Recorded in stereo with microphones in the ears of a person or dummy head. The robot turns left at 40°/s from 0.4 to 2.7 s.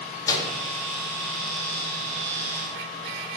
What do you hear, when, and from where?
0.3 s a microwave: 20° left (ahead or behind), 0.6 m; by 0.5 s 15° left (ahead or behind), 0.6 m